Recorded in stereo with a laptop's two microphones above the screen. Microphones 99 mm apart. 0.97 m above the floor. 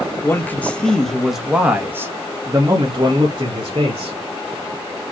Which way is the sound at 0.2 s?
20° left (ahead or behind).